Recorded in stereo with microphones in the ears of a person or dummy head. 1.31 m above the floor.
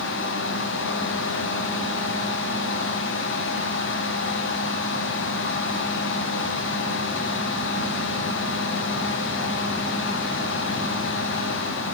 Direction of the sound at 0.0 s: 60° left (ahead or behind).